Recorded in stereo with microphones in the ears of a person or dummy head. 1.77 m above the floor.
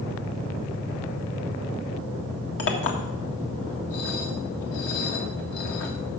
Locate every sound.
2.6 s a clink: 65° left (ahead or behind), 1.7 m